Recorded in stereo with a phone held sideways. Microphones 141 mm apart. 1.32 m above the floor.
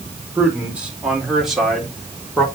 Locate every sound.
0.3 s a man speaking: 10° right (ahead or behind), 4.5 m; by 2.5 s 5° left (ahead or behind), 3.5 m